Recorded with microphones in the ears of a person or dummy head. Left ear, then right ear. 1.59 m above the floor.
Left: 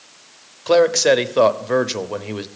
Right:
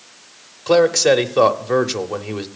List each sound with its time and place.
0.7 s a man speaking: 5° left (ahead or behind), 0.8 m